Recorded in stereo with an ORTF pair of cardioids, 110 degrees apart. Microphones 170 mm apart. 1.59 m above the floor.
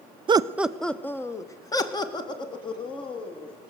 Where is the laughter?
30° right, 0.5 m; by 3.5 s 35° left, 3 m.